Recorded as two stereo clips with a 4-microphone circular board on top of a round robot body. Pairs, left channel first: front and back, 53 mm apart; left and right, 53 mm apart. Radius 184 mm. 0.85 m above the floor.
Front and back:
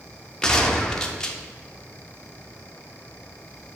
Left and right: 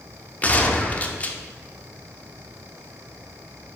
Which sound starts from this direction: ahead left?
A gunshot, at 0.4 s.